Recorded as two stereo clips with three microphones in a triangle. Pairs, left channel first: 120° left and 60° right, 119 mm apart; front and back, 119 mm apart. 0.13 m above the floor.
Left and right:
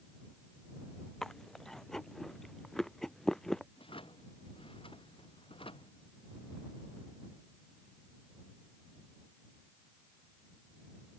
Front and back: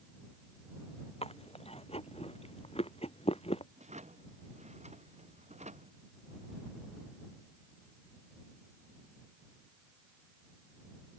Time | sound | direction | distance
1.2 | chewing | 35° left | ?
3.8 | a drawer | 160° left | ?